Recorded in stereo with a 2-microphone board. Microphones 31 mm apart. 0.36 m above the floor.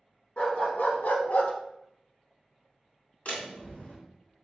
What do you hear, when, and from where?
0.4 s a dog barking: 45° left (ahead or behind), 1.0 m; by 1.5 s 50° left (ahead or behind), 0.6 m
3.2 s a door slam: 55° left (ahead or behind), 1.6 m